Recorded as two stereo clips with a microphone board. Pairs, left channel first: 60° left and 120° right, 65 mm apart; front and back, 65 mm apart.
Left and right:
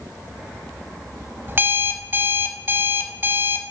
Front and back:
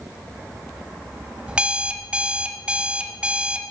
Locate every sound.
1.5 s an alarm clock: 120° right, 0.5 m